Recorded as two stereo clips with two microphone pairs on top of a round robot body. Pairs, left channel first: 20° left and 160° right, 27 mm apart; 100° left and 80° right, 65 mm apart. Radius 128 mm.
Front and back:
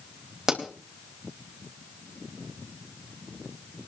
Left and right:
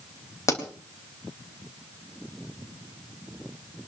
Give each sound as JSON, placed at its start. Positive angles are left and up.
{"t": 0.5, "sound": "a pop", "azimuth_deg": 135, "distance_m": 4.0}